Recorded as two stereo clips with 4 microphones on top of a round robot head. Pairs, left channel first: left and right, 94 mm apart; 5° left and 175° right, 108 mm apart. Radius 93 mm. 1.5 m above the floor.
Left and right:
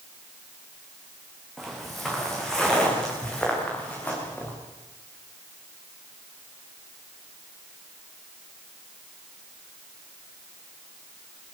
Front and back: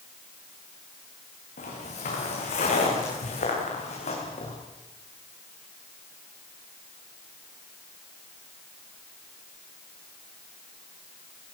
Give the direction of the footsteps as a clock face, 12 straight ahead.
12 o'clock.